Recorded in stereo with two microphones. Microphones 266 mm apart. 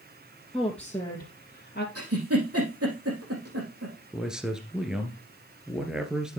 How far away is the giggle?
About 4 m.